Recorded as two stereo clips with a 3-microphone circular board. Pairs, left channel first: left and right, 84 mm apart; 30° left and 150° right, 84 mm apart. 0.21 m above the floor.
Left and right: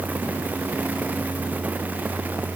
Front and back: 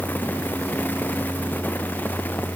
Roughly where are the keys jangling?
I don't hear keys jangling.